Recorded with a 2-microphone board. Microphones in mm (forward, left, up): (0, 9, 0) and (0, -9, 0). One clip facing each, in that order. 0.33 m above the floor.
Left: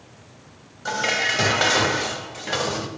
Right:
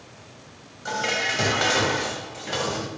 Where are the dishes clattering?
20° left (ahead or behind), 1.3 m.